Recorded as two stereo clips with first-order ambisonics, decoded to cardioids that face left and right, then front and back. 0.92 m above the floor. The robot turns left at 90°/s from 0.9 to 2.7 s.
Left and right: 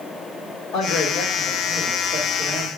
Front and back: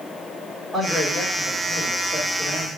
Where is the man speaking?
95° left, 1.8 m; by 2.7 s 65° right, 1.8 m.